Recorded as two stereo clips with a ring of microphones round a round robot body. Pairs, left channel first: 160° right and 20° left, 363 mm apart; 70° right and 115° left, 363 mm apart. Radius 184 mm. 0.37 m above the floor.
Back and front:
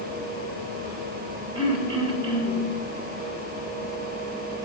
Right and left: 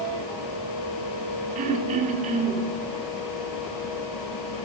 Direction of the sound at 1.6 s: 80° left.